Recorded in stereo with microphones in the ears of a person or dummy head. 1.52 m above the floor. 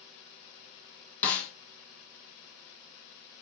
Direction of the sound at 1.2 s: 15° left (ahead or behind).